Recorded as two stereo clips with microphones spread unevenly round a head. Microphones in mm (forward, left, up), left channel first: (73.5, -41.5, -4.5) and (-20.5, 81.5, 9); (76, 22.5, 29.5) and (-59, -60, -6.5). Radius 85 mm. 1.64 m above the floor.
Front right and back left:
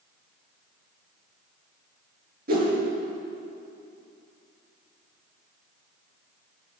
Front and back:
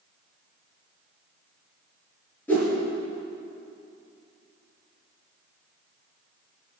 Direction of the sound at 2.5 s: 110° left.